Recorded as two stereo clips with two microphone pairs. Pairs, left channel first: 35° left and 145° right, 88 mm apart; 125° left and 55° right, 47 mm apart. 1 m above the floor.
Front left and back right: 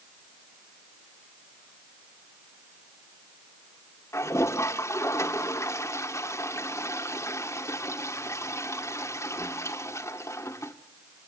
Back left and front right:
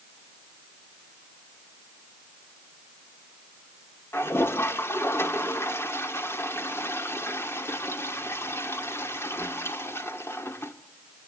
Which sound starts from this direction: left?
A toilet flushing, at 4.1 s.